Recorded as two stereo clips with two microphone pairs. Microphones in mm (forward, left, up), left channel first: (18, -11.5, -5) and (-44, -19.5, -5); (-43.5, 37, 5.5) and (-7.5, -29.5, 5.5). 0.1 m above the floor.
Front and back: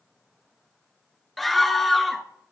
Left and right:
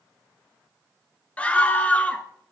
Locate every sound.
1.4 s a scream: 100° left, 1.1 m